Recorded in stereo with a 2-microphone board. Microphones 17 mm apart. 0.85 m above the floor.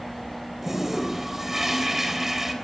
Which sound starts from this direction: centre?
A toilet flushing, at 0.6 s.